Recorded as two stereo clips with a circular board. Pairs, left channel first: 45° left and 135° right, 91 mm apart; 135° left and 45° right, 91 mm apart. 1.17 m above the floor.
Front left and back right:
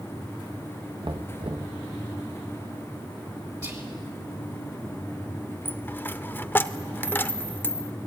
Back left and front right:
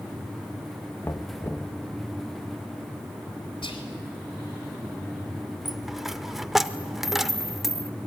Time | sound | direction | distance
1.0 | knocking | 165° right | 1.1 m
3.6 | whispering | 170° left | 3.5 m
5.7 | a dropped coin | 35° left | 0.8 m